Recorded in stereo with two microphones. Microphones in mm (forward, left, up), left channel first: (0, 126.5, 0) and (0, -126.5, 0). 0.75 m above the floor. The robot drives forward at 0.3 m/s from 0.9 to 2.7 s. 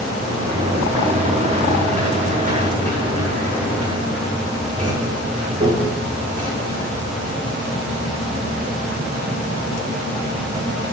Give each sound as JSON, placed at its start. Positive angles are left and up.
{"t": 0.2, "sound": "a sliding door", "side_deg": -30, "distance_m": 5.0}